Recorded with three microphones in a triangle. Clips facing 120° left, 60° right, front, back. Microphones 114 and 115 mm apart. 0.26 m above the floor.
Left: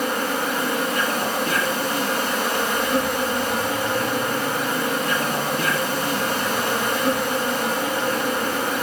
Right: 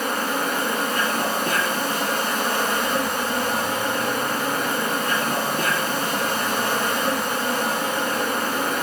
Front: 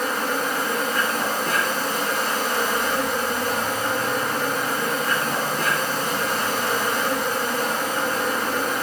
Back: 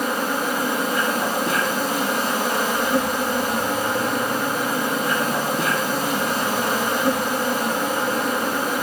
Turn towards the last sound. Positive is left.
turn(degrees=-100)